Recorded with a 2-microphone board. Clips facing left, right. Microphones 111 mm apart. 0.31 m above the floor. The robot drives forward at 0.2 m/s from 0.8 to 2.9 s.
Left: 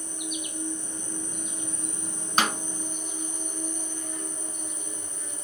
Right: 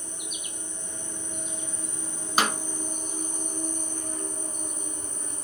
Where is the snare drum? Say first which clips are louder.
Even; 10° right (ahead or behind), 0.6 m.